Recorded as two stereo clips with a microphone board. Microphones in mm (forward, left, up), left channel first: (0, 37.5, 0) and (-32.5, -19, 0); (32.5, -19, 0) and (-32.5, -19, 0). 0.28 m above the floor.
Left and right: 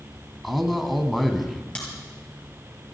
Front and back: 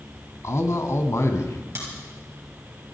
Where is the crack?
130° left, 5 m.